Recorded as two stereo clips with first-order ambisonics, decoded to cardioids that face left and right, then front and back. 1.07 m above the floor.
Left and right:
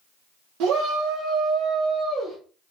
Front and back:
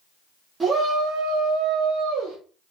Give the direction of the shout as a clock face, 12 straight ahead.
4 o'clock.